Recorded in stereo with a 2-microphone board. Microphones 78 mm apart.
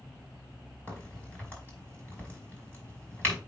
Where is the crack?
20° left (ahead or behind), 5 m.